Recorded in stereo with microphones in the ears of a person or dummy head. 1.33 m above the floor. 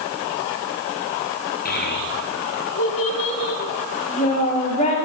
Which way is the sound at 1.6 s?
50° left (ahead or behind).